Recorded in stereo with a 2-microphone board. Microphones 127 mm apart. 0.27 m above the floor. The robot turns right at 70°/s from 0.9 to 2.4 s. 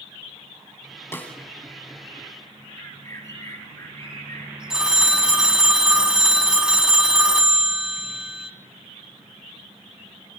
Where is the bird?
25° left (ahead or behind), 4 m.